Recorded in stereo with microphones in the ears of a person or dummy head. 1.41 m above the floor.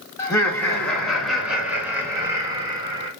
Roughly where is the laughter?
Centre.